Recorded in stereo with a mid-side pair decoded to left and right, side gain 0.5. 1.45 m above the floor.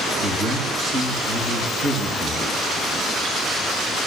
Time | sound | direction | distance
0.2 | a man speaking | 40° right | 3 m